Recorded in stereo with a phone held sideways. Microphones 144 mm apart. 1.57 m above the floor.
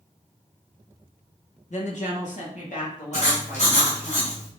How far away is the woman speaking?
About 2.0 m.